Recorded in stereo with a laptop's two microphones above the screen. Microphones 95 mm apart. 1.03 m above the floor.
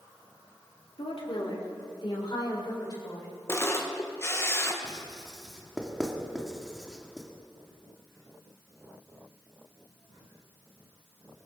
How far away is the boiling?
No boiling in this recording.